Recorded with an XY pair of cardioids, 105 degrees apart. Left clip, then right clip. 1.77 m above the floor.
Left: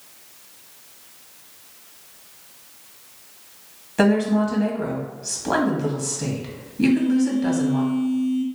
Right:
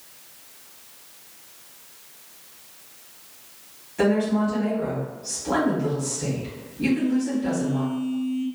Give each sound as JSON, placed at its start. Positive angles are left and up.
{"t": 4.0, "sound": "a woman speaking", "azimuth_deg": 70, "distance_m": 1.5}
{"t": 6.8, "sound": "a phone buzzing", "azimuth_deg": 55, "distance_m": 1.0}